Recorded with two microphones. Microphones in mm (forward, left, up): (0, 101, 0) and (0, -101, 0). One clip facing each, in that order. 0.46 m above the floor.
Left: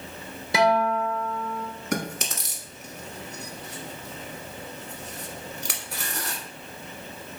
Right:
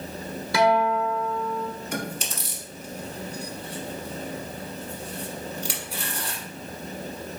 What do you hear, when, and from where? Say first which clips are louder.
0.5 s a guitar: right 1 dB; 20° left (ahead or behind), 1.1 m
1.9 s chewing: left 2 dB; 70° left (ahead or behind), 1.0 m